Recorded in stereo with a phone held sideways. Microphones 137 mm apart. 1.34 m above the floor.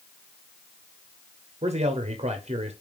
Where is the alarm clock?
No alarm clock in this recording.